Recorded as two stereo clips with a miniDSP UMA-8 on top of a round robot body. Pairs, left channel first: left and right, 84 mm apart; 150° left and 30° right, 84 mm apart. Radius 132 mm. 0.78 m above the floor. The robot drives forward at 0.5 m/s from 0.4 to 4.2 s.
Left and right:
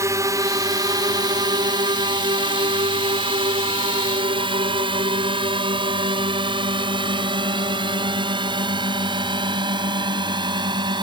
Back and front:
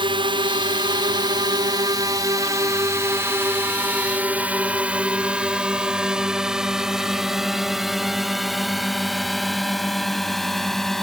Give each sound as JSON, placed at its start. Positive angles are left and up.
{"t": 0.0, "sound": "a drone", "azimuth_deg": -40}